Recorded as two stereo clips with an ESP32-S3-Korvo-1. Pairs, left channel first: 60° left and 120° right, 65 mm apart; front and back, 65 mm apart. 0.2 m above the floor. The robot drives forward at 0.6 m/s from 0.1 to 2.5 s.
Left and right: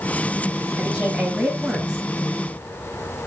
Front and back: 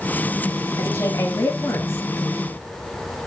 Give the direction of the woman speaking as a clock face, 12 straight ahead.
1 o'clock.